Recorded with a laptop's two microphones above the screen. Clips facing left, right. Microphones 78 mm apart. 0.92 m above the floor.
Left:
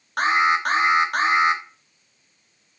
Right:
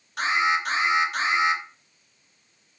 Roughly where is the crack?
No crack in this recording.